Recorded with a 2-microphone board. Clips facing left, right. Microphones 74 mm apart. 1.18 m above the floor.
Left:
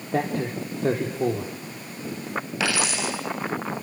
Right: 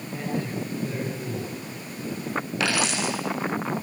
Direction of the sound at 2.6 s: Centre (ahead or behind).